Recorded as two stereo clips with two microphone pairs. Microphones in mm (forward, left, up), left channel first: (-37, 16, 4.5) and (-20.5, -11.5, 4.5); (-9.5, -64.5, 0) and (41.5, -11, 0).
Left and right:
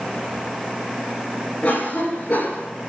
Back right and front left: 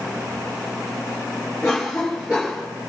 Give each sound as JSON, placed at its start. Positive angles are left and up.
{"t": 1.6, "sound": "a cough", "azimuth_deg": 130, "distance_m": 6.0}